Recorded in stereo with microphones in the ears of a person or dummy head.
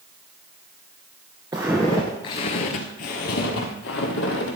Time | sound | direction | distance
1.5 | footsteps | 10° right (ahead or behind) | 1.1 m